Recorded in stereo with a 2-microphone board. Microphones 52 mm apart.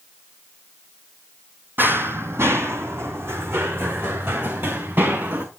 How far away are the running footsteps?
About 1.1 m.